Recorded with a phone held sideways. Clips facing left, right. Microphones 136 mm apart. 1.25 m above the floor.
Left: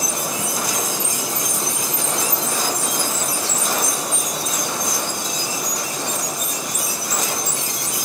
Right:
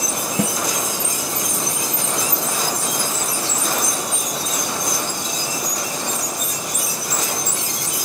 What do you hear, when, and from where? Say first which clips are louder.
0.4 s a snare drum: right 6 dB; 80° right, 0.6 m